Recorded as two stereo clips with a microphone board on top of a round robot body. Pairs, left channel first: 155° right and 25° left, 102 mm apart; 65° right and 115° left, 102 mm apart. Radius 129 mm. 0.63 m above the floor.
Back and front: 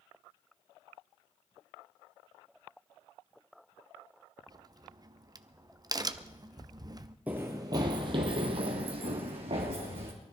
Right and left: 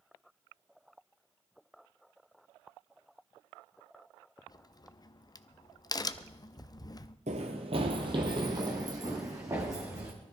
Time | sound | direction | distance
4.5 | a crack | 25° right | 0.7 m
7.3 | running footsteps | 100° left | 0.8 m